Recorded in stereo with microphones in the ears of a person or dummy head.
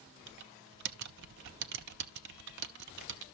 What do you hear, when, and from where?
0.3 s typing on a keyboard: 65° right (ahead or behind), 0.5 m